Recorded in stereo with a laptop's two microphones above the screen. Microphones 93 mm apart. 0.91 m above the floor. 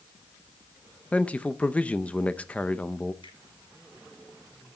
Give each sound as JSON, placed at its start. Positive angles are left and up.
{"t": 1.1, "sound": "a man speaking", "side_deg": 15, "distance_m": 0.6}
{"t": 3.2, "sound": "a finger snap", "side_deg": 65, "distance_m": 9.0}